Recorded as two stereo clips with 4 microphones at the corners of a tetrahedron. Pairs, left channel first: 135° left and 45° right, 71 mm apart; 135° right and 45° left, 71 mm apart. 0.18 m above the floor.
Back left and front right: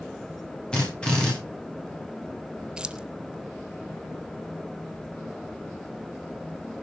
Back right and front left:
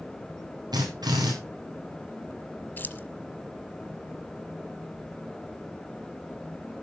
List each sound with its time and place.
0.7 s a drill: 60° left, 9.5 m
2.8 s keys jangling: 110° right, 0.9 m